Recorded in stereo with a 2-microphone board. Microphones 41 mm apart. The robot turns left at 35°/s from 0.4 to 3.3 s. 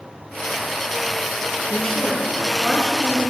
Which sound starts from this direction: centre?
A woman speaking, at 1.7 s.